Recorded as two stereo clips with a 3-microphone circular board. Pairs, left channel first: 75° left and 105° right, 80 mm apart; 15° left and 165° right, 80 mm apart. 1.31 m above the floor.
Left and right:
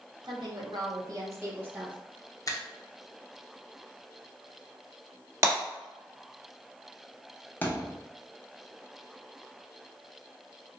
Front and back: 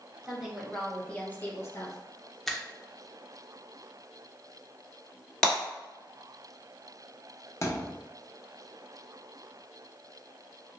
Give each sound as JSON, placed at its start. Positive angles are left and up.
{"t": 0.2, "sound": "a woman speaking", "azimuth_deg": -85, "distance_m": 1.1}
{"t": 2.5, "sound": "a finger snap", "azimuth_deg": 100, "distance_m": 0.5}
{"t": 5.4, "sound": "breaking glass", "azimuth_deg": -65, "distance_m": 1.9}
{"t": 7.6, "sound": "a thud", "azimuth_deg": 25, "distance_m": 0.7}